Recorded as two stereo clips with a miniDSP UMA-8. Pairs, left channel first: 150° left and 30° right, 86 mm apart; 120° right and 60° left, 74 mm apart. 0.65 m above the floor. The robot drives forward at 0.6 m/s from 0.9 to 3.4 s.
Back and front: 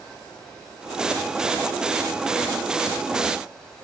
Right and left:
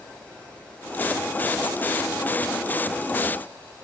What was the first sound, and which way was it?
Only background noise.